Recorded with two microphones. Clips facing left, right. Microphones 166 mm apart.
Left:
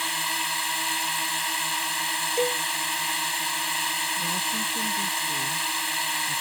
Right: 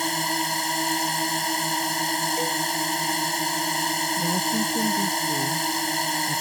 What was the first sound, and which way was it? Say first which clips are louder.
A drone: right 7 dB; 45° right (ahead or behind).